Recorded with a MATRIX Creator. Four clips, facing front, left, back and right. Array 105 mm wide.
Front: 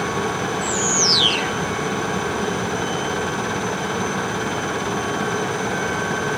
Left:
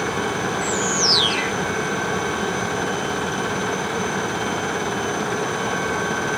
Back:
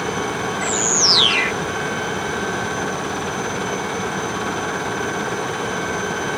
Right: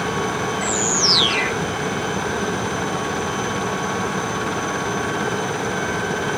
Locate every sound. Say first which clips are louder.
0.6 s a bird: even, even; 165° right